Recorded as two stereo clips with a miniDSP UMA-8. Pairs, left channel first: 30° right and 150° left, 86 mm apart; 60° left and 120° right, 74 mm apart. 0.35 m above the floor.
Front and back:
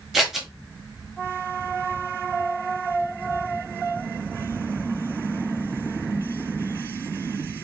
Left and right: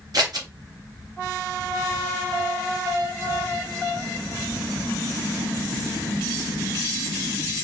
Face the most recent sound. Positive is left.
turn(degrees=-120)